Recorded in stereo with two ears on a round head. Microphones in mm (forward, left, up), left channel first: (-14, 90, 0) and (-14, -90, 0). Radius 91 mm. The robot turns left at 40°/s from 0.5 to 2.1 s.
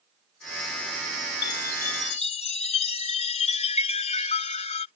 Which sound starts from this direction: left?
A chime, at 1.4 s.